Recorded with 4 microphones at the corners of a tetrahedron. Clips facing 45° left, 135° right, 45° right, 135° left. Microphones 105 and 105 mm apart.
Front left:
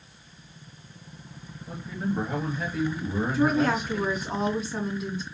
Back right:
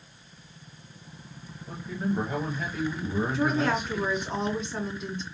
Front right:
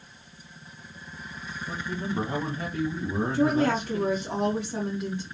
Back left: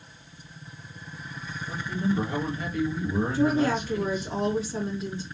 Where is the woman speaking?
40° right, 2.5 m.